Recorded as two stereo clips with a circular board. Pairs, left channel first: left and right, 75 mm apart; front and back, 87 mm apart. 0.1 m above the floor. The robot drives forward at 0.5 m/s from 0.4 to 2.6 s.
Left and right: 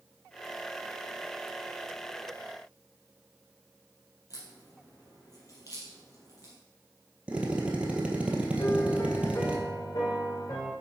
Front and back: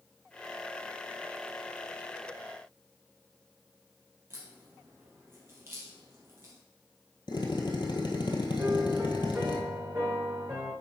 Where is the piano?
115° left, 2.5 m.